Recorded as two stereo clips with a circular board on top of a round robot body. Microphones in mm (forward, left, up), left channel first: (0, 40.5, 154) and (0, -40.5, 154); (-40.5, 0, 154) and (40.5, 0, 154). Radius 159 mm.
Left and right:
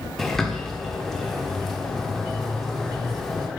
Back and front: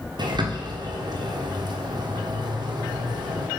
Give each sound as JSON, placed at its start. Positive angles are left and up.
{"t": 0.2, "sound": "a bird", "azimuth_deg": 5, "distance_m": 1.4}